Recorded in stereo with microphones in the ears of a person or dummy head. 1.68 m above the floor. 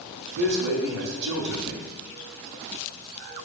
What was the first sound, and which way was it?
A man speaking, 55° right (ahead or behind).